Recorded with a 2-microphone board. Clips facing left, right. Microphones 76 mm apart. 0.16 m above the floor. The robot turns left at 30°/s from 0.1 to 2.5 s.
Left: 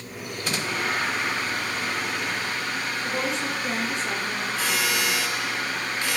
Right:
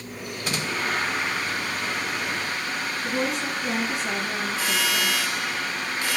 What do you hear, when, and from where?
3.0 s a woman speaking: 5° right (ahead or behind), 1.5 m